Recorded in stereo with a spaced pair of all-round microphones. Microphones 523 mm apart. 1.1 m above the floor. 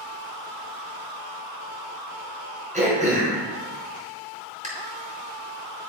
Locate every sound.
2.7 s throat clearing: 15° right (ahead or behind), 4 m